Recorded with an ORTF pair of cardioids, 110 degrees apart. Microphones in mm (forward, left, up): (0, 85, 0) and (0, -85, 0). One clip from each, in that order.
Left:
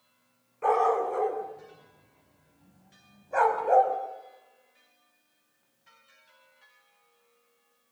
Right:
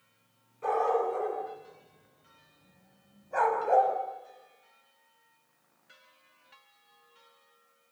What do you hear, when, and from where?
0.6 s a dog barking: 40° left, 7.5 m; by 4.0 s 15° left, 5 m